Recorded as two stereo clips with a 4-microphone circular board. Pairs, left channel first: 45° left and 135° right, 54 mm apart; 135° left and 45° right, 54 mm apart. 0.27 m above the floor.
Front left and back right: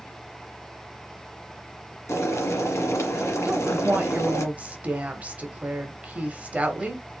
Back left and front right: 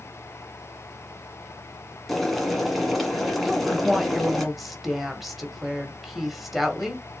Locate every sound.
2.1 s boiling: 45° left, 1.5 m
3.5 s a woman speaking: 130° right, 1.2 m